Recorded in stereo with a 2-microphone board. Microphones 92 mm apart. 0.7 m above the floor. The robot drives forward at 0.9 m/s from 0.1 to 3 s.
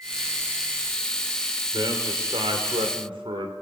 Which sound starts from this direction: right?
A man speaking, at 1.7 s.